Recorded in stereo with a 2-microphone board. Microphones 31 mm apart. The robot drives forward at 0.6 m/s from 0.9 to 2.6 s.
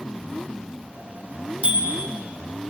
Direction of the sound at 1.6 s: 50° right (ahead or behind).